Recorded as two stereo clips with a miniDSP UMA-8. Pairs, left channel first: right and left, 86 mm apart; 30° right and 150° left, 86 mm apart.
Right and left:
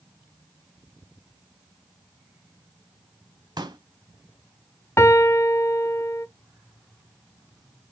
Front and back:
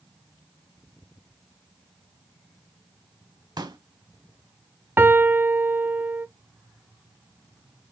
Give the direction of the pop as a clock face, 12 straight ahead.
8 o'clock.